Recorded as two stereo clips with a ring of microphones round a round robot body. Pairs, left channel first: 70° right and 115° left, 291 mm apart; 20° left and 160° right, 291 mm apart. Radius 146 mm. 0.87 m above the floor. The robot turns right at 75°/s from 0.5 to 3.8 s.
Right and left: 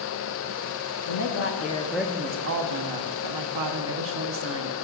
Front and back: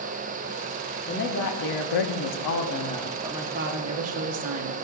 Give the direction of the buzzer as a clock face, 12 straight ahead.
No buzzer in this recording.